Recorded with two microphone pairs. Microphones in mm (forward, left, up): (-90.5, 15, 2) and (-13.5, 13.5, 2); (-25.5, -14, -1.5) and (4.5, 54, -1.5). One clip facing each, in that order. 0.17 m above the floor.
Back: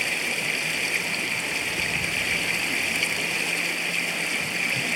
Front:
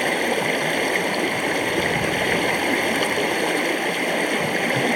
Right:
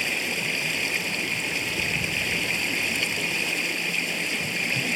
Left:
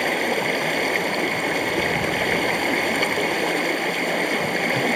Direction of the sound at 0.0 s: 35° left.